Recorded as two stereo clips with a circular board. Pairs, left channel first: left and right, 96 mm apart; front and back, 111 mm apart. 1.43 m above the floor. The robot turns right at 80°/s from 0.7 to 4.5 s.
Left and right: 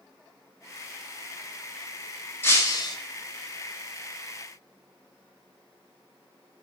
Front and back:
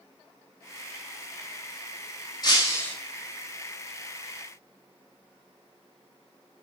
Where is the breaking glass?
30° left, 1.5 m; by 3.0 s 70° left, 1.5 m.